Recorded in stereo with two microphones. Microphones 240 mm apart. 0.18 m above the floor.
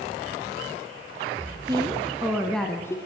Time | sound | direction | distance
1.7 | a woman speaking | 20° right (ahead or behind) | 2 m